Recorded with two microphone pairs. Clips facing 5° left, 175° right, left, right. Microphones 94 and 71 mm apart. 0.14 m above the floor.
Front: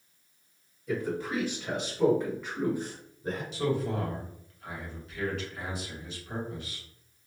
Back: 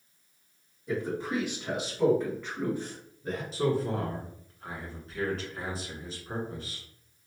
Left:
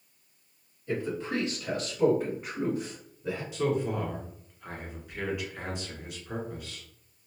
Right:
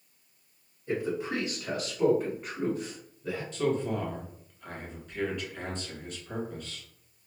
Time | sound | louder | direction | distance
0.9 | a man speaking | even, right 1 dB | 140° right | 1.9 m
3.5 | a man speaking | back 2 dB, even | 165° left | 1.3 m